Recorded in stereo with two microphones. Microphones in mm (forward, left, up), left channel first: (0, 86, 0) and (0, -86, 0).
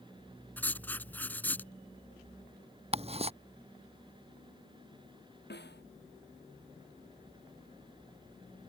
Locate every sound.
0.6 s writing: 10° left (ahead or behind)
2.9 s ticking: 35° right (ahead or behind)
5.5 s a snare drum: 80° left